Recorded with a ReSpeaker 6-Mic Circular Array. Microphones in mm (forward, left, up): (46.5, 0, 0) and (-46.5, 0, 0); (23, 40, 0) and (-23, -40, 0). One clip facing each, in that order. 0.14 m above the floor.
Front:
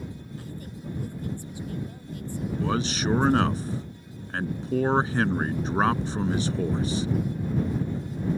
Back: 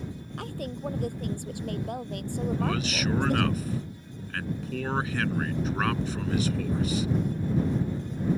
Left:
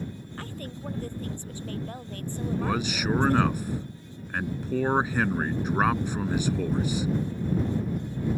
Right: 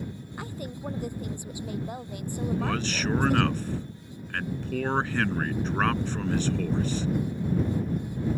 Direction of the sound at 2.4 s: 5° right.